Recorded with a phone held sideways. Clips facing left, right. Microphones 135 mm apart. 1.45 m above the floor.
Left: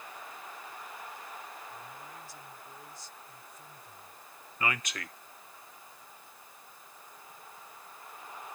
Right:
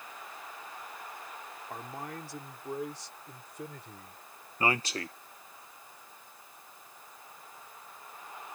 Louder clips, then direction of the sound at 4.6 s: Right 4 dB; 30° right (ahead or behind).